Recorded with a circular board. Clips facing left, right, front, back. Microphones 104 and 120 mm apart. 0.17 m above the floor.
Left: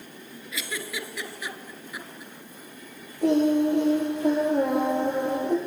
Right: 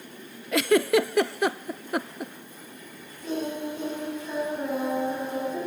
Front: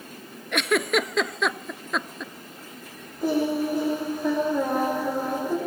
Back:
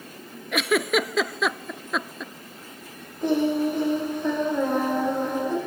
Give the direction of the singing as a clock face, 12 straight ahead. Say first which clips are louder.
Left 10 dB, back 2 dB; 9 o'clock.